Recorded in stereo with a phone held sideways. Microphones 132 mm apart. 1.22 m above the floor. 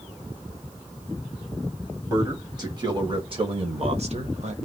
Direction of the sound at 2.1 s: 25° right (ahead or behind).